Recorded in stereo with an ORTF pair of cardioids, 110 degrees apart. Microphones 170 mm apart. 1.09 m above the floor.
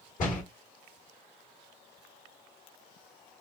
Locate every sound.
0.2 s a door slam: 50° left, 1.7 m